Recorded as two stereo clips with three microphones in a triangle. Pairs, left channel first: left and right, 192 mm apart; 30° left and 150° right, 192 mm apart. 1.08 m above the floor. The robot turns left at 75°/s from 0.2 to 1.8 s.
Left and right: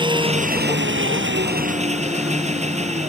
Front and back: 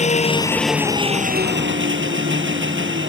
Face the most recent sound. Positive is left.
turn(degrees=-145)